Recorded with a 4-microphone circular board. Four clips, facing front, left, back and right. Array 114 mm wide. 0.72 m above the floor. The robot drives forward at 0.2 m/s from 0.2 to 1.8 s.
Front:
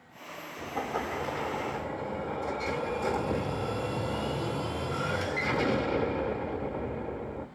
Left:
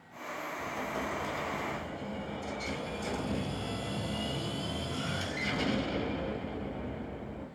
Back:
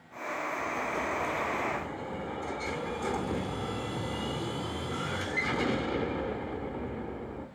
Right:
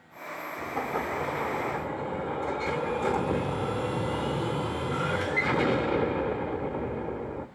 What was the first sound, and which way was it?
An explosion, 70° right.